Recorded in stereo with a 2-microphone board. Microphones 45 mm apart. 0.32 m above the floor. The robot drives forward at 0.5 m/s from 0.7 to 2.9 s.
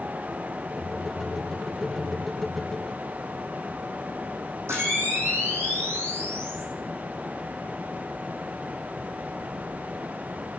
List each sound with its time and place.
4.7 s a camera shutter: 80° right, 2.5 m